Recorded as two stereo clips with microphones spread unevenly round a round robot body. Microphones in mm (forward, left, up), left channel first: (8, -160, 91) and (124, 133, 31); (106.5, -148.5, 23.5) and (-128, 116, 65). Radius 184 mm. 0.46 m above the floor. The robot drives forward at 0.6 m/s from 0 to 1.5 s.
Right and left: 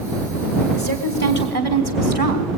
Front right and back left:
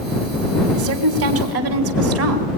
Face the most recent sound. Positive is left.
turn(degrees=-175)